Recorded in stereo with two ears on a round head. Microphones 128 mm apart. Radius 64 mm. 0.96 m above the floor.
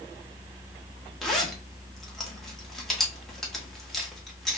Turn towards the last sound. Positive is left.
turn(degrees=0)  # may be behind; listen again after turning